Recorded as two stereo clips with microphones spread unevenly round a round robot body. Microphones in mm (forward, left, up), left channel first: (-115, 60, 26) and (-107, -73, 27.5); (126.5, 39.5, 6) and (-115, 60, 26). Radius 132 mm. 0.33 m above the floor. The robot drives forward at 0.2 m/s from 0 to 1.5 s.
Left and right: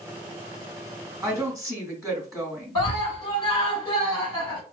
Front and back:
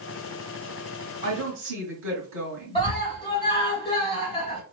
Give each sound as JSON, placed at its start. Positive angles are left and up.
{"t": 1.2, "sound": "a woman speaking", "azimuth_deg": -170, "distance_m": 1.2}
{"t": 2.8, "sound": "a scream", "azimuth_deg": 50, "distance_m": 1.4}